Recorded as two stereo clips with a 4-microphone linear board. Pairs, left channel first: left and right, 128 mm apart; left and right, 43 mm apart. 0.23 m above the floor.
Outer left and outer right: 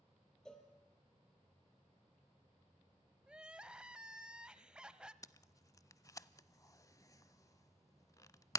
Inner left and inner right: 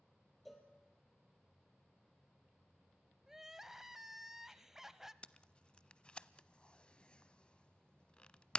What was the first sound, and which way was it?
A cowbell, 5° left (ahead or behind).